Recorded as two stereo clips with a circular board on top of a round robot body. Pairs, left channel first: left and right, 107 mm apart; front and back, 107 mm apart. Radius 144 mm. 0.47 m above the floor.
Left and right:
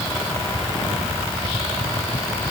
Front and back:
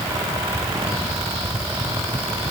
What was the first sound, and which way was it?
Only background noise.